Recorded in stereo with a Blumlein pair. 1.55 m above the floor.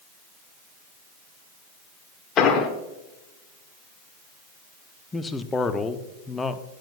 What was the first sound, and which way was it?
An explosion, 30° left.